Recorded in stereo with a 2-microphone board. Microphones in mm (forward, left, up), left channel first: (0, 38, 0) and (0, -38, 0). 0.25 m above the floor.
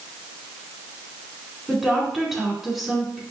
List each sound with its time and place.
1.7 s a woman speaking: 5° right (ahead or behind), 2.5 m